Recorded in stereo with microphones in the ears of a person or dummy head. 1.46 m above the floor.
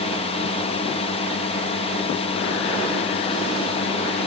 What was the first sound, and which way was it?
A drone, 35° left (ahead or behind).